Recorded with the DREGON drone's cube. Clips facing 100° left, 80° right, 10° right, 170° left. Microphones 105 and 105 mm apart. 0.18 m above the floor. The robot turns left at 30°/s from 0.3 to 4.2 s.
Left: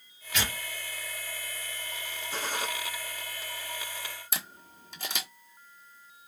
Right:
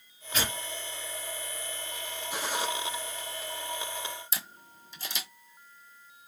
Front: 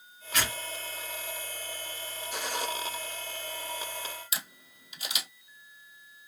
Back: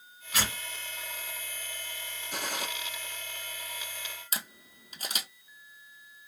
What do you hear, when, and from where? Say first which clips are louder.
0.3 s tearing paper: right 1 dB, front 1 dB; 110° right, 2.5 m; by 0.6 s 115° right, 2.5 m
2.3 s a gunshot: right 1 dB, front 2 dB; 155° right, 1.8 m; by 2.7 s 165° right, 1.8 m
4.3 s a camera shutter: left 2 dB, back 1 dB; 125° left, 1.2 m